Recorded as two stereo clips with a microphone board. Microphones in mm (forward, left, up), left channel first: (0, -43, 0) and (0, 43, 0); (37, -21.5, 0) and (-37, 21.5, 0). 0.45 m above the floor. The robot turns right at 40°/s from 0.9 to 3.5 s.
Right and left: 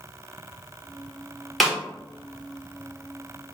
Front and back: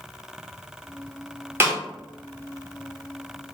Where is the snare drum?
Straight behind, 1.2 m; by 1.8 s 175° right, 1.2 m.